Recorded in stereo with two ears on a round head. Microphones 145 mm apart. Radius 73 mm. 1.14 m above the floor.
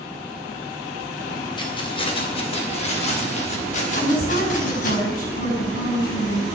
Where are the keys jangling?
30° left (ahead or behind), 3 m; by 5.0 s 55° left (ahead or behind), 5 m.